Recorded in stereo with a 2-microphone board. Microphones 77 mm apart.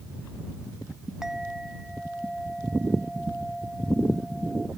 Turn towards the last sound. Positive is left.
turn(degrees=-5)  # may be behind; listen again after turning